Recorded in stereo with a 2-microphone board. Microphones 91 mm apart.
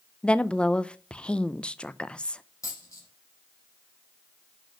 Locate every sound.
0.2 s a woman speaking: 10° left (ahead or behind), 0.6 m
2.6 s a dropped coin: 35° left (ahead or behind), 4.5 m